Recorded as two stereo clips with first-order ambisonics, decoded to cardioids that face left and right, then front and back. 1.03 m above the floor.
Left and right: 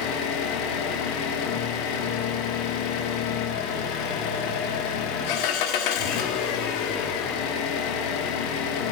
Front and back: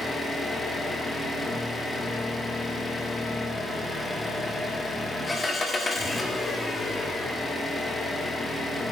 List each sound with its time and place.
0.0 s an engine running: 80° left, 1.2 m